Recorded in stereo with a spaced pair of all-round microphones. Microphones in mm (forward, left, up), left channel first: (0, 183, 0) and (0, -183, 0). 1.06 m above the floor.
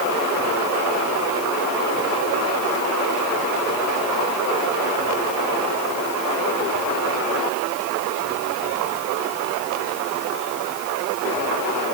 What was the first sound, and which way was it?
Only background noise.